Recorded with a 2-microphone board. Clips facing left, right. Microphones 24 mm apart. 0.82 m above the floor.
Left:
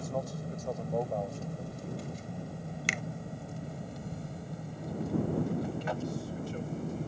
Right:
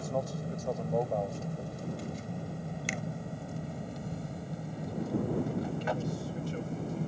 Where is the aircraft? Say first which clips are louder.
Right 2 dB; 10° right (ahead or behind); by 7.1 s 5° right (ahead or behind).